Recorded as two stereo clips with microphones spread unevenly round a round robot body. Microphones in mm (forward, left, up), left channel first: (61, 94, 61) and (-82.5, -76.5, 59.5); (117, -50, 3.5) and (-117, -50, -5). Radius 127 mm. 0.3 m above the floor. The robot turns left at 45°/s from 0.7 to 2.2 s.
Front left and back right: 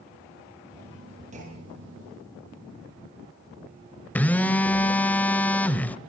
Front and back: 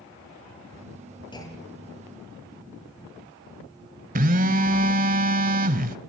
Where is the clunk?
70° right, 6 m; by 2.0 s 100° right, 6 m.